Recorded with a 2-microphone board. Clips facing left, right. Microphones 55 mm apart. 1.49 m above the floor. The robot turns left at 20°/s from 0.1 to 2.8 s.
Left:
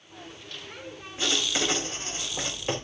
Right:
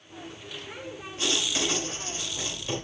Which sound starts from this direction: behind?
Writing, at 1.2 s.